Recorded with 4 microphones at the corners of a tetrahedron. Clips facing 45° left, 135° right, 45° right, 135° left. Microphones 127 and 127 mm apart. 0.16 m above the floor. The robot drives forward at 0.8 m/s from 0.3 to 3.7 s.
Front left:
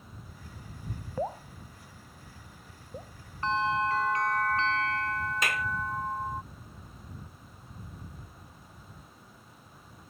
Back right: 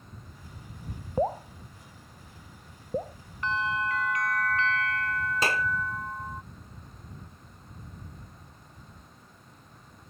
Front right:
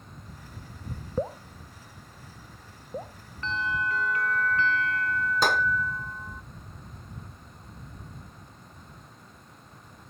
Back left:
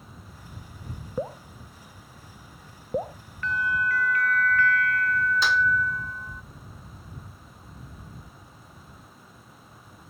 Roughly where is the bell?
Ahead.